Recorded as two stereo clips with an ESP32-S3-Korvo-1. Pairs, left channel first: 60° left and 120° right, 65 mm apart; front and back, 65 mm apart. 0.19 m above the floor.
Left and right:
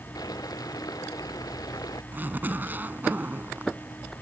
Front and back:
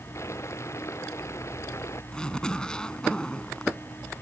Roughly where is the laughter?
I don't hear laughter.